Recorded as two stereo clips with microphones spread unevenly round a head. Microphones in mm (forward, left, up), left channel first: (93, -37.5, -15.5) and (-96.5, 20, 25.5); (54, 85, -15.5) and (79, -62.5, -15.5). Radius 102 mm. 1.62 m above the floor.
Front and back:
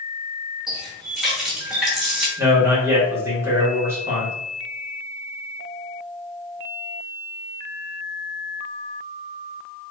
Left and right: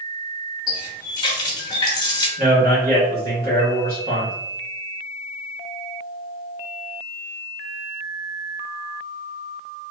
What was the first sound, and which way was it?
A running tap, 100° left.